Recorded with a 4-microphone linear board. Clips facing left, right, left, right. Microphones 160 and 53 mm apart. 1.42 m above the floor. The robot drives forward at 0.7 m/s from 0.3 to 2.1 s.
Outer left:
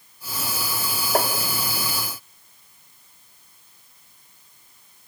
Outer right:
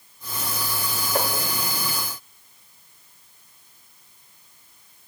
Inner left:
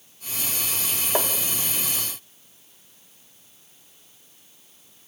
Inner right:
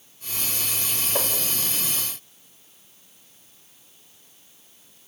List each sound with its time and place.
1.1 s tapping: 55° left (ahead or behind), 3 m